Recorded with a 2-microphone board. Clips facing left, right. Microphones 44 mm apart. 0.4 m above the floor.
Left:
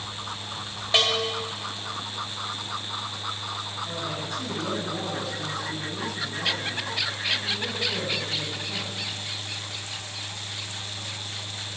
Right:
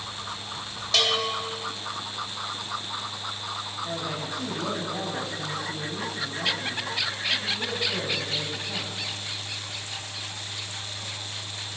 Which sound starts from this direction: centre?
A man speaking, at 3.9 s.